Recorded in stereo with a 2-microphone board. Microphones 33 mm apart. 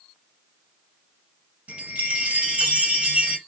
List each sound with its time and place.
1.7 s a chime: 45° right (ahead or behind), 1.2 m